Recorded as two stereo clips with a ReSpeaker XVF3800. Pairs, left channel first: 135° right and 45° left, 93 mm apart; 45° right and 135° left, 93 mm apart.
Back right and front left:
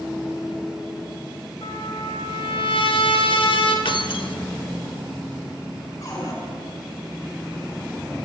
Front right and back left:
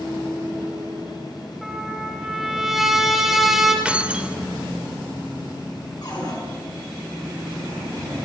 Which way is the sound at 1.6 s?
140° right.